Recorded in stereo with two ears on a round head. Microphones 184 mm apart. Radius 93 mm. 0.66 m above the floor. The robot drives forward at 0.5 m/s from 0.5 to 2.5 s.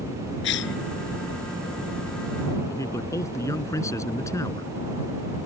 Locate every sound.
0.4 s a cough: 60° left (ahead or behind)
2.7 s a man speaking: 15° left (ahead or behind)